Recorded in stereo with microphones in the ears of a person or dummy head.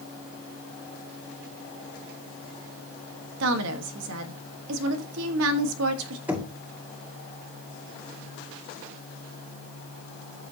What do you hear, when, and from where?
3.4 s a woman speaking: 80° right, 1.4 m
6.3 s knocking: 5° right (ahead or behind), 1.8 m